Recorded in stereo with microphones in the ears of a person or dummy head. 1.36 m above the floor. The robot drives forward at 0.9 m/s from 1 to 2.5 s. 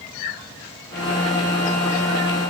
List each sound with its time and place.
Only background noise.